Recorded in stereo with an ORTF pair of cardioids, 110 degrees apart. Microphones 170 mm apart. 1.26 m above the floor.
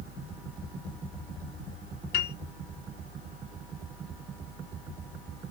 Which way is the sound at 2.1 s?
65° left.